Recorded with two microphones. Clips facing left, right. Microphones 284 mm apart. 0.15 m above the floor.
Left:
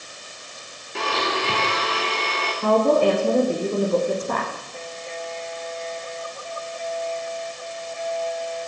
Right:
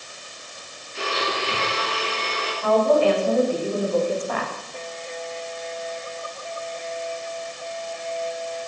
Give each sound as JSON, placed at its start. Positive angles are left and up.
{"t": 0.9, "sound": "a blender", "side_deg": 70, "distance_m": 8.5}
{"t": 2.6, "sound": "a woman speaking", "side_deg": 50, "distance_m": 9.0}